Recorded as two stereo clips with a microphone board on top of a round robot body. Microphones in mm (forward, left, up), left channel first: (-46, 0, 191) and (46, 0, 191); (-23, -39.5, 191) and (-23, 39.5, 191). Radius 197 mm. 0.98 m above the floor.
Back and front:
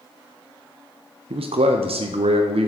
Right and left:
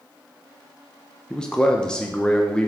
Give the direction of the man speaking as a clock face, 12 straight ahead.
12 o'clock.